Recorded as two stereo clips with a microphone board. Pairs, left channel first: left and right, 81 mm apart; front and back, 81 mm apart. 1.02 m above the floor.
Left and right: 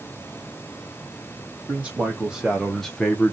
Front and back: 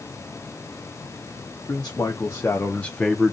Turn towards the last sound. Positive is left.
turn(degrees=100)